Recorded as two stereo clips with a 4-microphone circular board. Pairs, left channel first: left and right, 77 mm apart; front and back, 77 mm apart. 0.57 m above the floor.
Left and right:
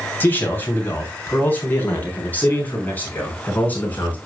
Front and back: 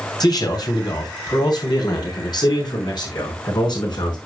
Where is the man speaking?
25° left, 2.5 m.